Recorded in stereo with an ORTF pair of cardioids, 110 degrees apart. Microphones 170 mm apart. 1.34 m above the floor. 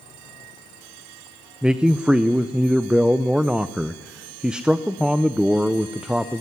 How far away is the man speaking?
About 0.6 m.